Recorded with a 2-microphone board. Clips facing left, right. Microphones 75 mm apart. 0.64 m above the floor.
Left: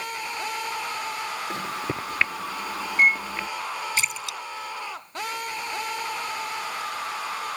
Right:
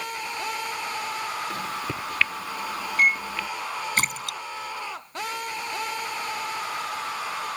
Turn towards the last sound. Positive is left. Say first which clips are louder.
# right 2 dB
turn(degrees=-50)  # may be behind; listen again after turning